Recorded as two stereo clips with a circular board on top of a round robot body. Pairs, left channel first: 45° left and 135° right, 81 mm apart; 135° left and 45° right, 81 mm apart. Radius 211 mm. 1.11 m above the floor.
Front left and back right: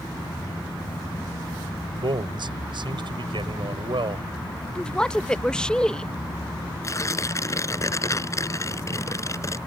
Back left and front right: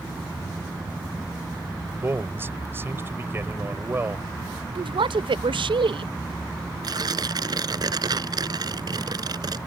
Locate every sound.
2.0 s a man speaking: 110° right
4.8 s a woman speaking: 35° right
6.8 s tearing paper: 10° right